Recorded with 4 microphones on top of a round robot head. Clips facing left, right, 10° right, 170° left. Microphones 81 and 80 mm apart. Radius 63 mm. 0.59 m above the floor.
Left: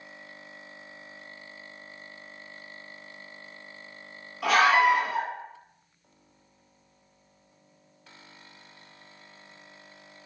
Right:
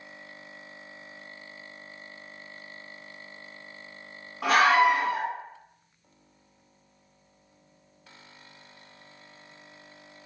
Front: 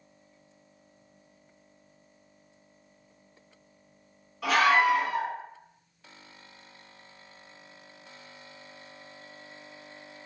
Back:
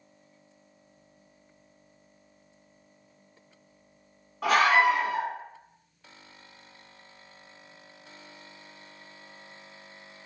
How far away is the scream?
About 2.0 m.